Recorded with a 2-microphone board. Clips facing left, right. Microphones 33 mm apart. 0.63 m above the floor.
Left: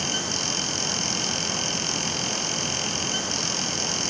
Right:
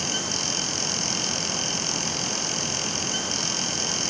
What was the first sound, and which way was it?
Only background noise.